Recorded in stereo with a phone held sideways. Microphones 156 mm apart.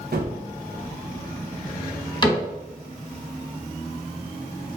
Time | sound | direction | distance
0.1 | a gunshot | 75° right (ahead or behind) | 0.9 m
2.2 | a cupboard door | 30° left (ahead or behind) | 1.9 m